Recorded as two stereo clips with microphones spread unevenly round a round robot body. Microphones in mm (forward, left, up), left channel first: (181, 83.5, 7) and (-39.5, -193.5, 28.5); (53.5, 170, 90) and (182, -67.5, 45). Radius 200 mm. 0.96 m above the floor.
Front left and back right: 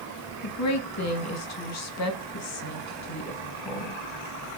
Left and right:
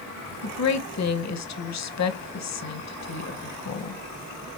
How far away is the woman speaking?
About 0.9 m.